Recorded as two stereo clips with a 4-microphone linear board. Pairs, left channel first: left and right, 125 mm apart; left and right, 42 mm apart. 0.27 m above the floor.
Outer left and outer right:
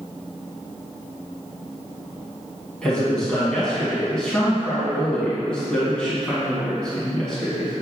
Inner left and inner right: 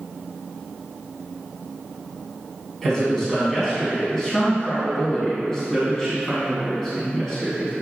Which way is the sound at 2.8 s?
5° left (ahead or behind).